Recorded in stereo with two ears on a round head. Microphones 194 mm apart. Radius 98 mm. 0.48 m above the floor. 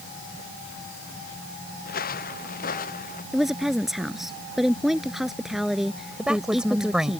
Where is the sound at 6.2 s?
5° right (ahead or behind).